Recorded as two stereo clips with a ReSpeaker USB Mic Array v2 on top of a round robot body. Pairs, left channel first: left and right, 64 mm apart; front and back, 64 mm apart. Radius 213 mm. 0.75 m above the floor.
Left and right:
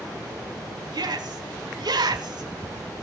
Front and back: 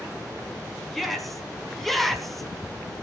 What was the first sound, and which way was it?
A shout, 90° right.